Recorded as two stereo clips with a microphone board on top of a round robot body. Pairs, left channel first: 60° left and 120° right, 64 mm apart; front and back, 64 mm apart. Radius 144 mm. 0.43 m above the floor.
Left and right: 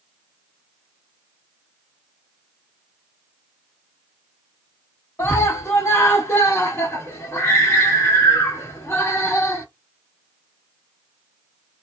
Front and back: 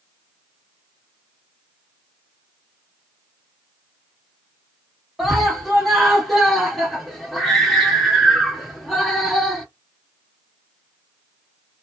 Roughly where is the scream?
Left.